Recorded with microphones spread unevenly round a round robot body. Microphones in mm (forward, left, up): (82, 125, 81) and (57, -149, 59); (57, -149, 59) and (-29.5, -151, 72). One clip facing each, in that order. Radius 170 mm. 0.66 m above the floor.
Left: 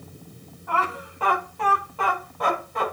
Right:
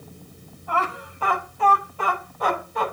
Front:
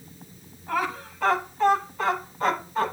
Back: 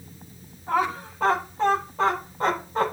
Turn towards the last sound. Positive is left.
turn(degrees=115)